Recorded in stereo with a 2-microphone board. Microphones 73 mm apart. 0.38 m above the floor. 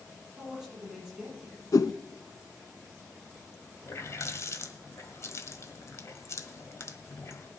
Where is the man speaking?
10° right (ahead or behind), 8.5 m.